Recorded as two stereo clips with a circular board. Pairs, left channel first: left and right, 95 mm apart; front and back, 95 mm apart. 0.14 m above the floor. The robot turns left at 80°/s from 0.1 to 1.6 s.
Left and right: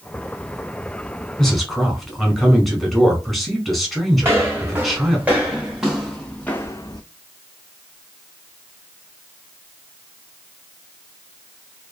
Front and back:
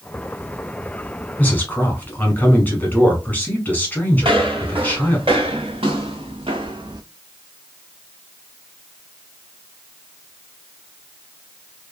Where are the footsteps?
155° right, 1.7 m; by 7.0 s 135° left, 0.5 m.